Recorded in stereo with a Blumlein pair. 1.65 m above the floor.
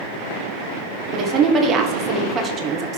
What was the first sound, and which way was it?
A woman speaking, 25° right.